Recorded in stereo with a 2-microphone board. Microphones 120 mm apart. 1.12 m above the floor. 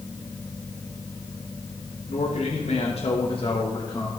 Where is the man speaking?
70° left (ahead or behind), 1.8 m; by 4.1 s 30° left (ahead or behind), 1.6 m.